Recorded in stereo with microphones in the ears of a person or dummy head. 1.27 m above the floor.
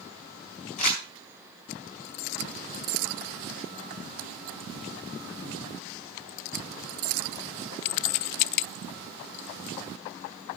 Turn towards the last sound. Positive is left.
turn(degrees=40)  # may be behind; listen again after turning